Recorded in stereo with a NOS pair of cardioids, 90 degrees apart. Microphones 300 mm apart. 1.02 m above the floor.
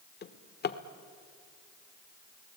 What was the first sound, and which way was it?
A drawer, 35° left.